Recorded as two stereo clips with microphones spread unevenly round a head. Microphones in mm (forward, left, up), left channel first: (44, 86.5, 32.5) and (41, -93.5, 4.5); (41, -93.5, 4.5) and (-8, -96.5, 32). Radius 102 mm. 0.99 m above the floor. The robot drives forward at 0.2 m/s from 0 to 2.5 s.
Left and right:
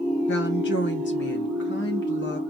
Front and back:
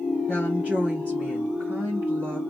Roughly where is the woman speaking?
Left.